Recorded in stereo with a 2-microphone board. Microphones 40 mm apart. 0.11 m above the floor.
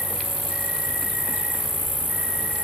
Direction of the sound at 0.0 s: 55° right (ahead or behind).